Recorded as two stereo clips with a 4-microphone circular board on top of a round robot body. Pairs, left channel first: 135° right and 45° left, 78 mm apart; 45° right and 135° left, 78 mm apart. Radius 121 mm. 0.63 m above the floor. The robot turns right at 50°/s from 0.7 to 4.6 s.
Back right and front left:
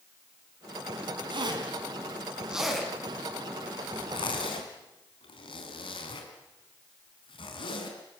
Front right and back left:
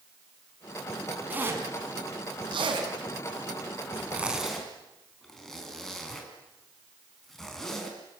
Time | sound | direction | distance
1.3 | a zipper | 65° left | 4.5 m